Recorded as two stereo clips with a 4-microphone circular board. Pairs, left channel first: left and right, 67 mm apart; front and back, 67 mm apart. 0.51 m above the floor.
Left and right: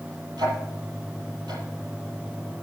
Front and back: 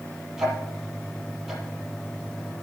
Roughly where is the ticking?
Right.